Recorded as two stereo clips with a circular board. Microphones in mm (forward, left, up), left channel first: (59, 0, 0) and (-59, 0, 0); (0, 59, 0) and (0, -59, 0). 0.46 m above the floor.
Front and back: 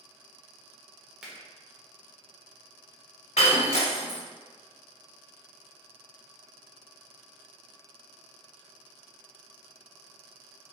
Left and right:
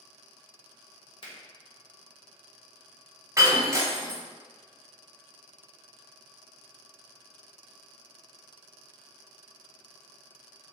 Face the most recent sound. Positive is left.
turn(degrees=-25)